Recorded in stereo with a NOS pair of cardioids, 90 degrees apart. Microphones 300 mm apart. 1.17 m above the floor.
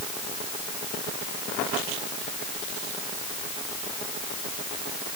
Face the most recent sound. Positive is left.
No sound to turn to.